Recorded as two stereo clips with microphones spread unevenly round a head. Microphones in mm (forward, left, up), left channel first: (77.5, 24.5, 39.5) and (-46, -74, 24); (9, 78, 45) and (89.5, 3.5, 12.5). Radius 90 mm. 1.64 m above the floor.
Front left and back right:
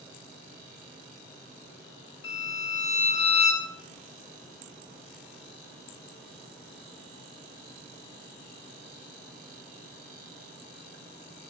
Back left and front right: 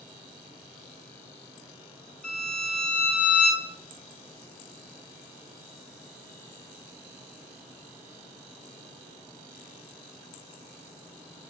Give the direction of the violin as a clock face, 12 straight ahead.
10 o'clock.